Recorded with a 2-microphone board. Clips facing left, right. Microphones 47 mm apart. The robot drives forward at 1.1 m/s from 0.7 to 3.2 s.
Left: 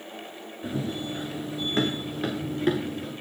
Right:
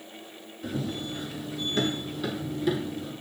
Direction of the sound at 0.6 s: 25° left (ahead or behind).